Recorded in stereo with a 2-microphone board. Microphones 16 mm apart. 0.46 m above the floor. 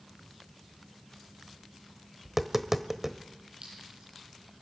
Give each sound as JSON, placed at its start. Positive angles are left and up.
{"t": 2.2, "sound": "tapping", "side_deg": -20, "distance_m": 1.2}
{"t": 3.6, "sound": "a clink", "side_deg": -85, "distance_m": 9.5}